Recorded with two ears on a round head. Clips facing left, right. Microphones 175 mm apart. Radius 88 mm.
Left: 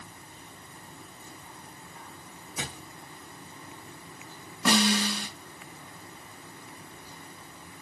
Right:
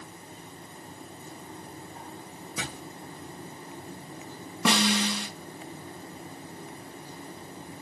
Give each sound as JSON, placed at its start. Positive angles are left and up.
{"t": 2.6, "sound": "a thud", "side_deg": -60, "distance_m": 5.5}
{"t": 4.7, "sound": "a snare drum", "side_deg": -60, "distance_m": 4.0}